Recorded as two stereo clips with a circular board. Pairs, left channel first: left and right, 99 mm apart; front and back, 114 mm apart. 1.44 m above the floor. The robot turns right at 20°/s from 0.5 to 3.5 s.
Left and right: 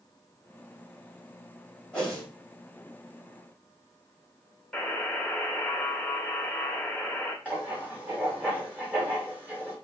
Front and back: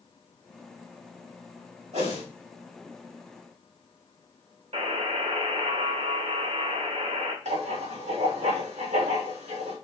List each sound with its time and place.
1.9 s a whoosh: 170° left, 3.5 m; by 2.2 s 175° left, 3.5 m
4.7 s a buzzer: 175° left, 1.9 m
7.5 s writing: 165° right, 3 m